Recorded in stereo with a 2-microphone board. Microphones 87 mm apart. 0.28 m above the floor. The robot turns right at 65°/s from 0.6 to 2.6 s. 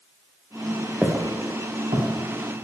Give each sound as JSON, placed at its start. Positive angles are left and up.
{"t": 1.0, "sound": "footsteps", "side_deg": -15, "distance_m": 1.1}